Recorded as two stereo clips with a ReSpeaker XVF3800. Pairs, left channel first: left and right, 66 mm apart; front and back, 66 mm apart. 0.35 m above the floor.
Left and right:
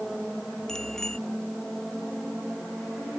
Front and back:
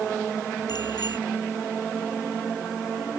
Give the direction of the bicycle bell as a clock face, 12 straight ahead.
12 o'clock.